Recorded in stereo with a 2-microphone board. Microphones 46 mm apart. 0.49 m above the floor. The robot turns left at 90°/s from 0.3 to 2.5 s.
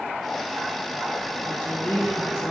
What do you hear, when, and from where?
1.4 s a woman speaking: 115° left, 1.3 m; by 2.5 s 25° left, 1.3 m